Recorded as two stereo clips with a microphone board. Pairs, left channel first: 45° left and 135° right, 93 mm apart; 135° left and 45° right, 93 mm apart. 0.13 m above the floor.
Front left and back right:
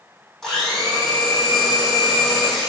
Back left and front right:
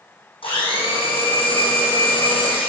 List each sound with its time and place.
0.4 s a blender: 130° left, 4 m